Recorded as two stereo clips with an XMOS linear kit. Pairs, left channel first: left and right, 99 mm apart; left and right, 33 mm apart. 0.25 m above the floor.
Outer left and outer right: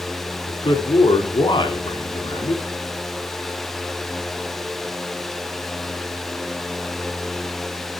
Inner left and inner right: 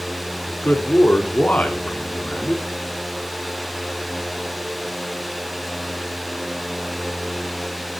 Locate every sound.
0.5 s a man speaking: 55° left (ahead or behind), 2 m